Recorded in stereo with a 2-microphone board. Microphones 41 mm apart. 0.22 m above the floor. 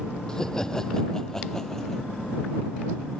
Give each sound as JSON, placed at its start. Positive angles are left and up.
{"t": 0.3, "sound": "laughter", "side_deg": 20}